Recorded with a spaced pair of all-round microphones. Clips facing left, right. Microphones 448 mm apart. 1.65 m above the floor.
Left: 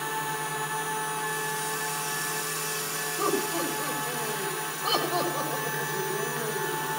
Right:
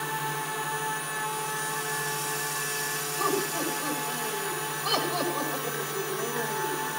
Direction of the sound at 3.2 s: 80° left.